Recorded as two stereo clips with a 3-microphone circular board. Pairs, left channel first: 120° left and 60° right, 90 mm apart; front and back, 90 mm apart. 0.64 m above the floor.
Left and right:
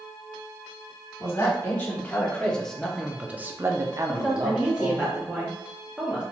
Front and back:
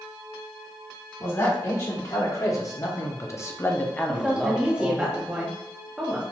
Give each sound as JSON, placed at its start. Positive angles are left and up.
{"t": 1.2, "sound": "a man speaking", "azimuth_deg": 55, "distance_m": 1.5}
{"t": 4.1, "sound": "a woman speaking", "azimuth_deg": -115, "distance_m": 0.9}